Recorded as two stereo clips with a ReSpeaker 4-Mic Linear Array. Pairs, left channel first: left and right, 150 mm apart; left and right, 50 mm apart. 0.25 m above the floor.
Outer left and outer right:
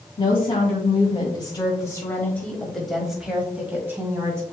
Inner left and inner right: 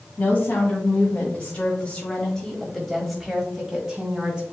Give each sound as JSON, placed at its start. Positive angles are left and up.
{"t": 0.2, "sound": "a woman speaking", "side_deg": 35, "distance_m": 1.9}